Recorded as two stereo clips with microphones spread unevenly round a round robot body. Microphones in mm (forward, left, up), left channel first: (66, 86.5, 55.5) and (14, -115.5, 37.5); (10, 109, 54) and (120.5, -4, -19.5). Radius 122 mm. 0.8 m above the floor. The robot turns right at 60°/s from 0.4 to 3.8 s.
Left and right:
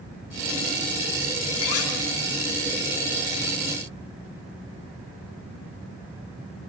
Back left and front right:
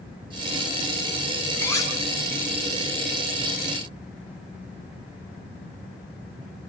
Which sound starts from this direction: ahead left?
Cutlery clinking, at 1.6 s.